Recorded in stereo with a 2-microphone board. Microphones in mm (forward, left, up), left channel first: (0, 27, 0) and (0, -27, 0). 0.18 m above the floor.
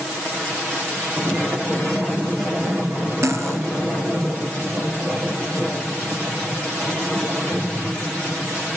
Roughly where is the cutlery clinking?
Right.